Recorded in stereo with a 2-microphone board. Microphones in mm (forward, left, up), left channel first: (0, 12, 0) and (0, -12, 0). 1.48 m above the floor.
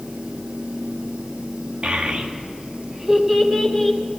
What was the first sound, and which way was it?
A child speaking, 55° right (ahead or behind).